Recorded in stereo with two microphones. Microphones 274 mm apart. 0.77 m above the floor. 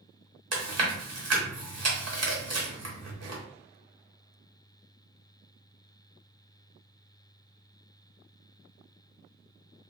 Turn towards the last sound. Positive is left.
turn(degrees=-65)  # may be behind; listen again after turning